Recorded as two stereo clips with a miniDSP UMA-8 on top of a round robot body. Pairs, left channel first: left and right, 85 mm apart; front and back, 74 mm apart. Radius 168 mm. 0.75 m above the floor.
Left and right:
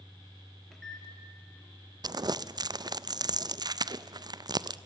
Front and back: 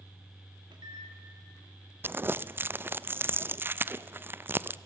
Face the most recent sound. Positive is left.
turn(degrees=-120)